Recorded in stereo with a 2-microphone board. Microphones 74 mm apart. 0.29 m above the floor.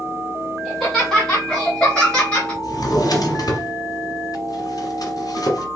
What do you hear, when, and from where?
0.7 s laughter: centre (ahead or behind), 2.5 m; by 2.5 s 15° left (ahead or behind), 1.5 m
2.6 s a drawer: 55° left (ahead or behind), 1.3 m